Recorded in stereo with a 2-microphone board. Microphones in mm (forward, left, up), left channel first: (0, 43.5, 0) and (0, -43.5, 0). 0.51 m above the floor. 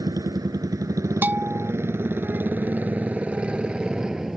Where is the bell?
20° right (ahead or behind).